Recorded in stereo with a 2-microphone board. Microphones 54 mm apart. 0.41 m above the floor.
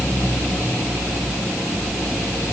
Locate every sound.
Only background noise.